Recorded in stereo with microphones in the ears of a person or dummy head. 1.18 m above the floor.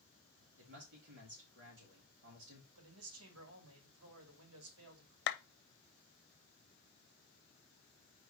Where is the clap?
55° left (ahead or behind), 0.6 m.